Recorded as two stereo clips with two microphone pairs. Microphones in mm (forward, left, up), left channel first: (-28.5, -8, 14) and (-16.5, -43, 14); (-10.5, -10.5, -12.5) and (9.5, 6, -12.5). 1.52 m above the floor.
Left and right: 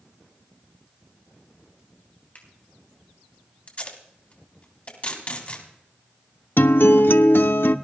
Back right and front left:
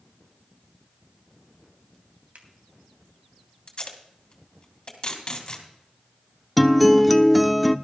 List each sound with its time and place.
2.4 s a finger snap: 65° left, 3.5 m
3.7 s tape being pulled: 165° left, 3 m
6.6 s a guitar: 130° left, 0.6 m